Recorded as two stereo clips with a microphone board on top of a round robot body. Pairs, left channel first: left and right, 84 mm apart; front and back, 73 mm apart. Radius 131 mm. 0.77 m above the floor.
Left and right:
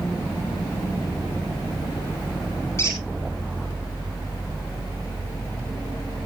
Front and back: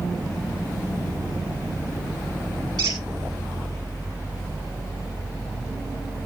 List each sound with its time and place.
2.8 s a squeak: 150° left, 1.8 m